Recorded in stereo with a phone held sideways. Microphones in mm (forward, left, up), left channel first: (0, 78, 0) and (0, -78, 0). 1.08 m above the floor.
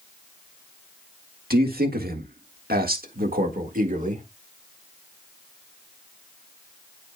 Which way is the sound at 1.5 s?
75° right (ahead or behind).